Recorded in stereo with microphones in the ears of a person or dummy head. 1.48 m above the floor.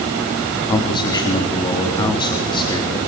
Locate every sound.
0.7 s a man speaking: 25° left (ahead or behind), 3.5 m